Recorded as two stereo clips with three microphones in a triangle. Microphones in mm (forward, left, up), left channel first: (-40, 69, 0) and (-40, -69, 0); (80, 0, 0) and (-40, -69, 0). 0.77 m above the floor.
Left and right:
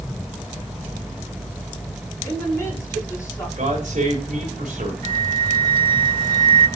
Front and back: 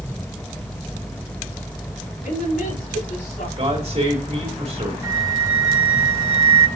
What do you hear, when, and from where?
2.2 s a woman speaking: 20° left, 5 m
3.6 s a man speaking: 115° right, 3.5 m
5.0 s a flute: 85° right, 2.0 m